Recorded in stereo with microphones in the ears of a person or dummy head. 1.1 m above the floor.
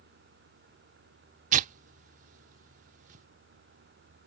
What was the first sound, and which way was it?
Tearing paper, 35° right (ahead or behind).